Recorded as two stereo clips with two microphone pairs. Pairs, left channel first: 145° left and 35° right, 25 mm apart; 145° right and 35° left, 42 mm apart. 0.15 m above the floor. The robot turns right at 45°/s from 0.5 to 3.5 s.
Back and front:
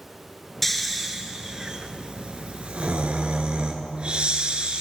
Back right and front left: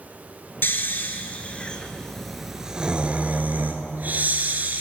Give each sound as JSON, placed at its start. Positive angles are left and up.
{"t": 0.6, "sound": "snoring", "azimuth_deg": -130, "distance_m": 1.2}